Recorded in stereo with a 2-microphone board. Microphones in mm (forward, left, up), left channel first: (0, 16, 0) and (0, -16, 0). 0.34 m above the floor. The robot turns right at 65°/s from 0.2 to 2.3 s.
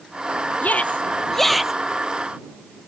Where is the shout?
60° left (ahead or behind); by 1.7 s 10° right (ahead or behind).